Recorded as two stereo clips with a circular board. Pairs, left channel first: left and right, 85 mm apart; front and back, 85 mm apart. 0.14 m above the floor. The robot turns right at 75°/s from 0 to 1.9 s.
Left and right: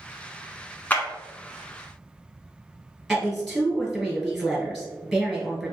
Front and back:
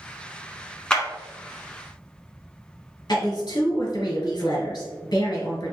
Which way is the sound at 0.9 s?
65° left.